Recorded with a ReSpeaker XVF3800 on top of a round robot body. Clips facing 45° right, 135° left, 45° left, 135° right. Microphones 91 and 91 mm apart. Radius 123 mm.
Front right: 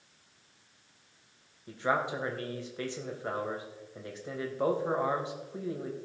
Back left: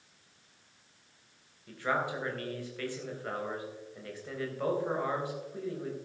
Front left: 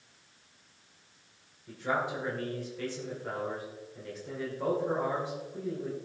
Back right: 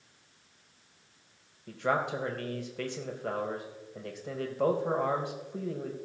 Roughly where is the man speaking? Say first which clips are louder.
Front right 2 dB, back right 2 dB; behind right.